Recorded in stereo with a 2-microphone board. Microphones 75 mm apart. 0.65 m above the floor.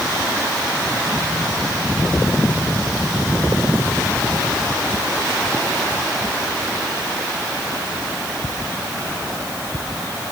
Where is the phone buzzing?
No phone buzzing in this recording.